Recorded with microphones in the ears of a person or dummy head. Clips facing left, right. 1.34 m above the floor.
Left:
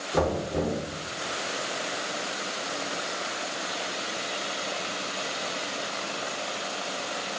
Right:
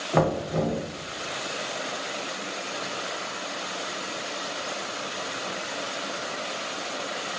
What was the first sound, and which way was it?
Knocking, 65° right (ahead or behind).